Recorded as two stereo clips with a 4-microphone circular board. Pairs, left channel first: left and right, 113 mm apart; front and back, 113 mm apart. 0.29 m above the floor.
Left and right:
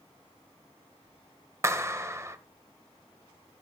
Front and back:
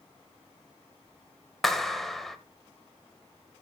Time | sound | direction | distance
1.6 | a clap | 85° right | 0.7 m